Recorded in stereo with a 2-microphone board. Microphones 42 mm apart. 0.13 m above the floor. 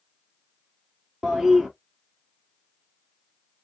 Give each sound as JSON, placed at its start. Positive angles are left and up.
{"t": 1.2, "sound": "a toilet flushing", "side_deg": -10, "distance_m": 1.5}